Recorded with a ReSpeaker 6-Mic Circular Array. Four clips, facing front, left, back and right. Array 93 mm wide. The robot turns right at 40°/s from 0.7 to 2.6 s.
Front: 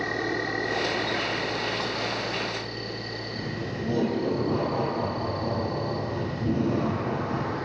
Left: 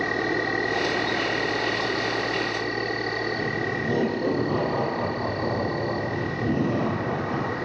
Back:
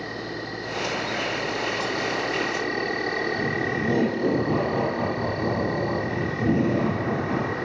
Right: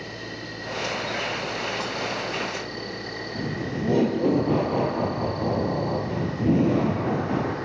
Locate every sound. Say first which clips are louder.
0.0 s an insect: left 11 dB, front 4 dB; 85° left, 4 m; by 7.7 s 160° left, 4 m
3.4 s laughter: left 2 dB, back 7 dB; 120° right, 4 m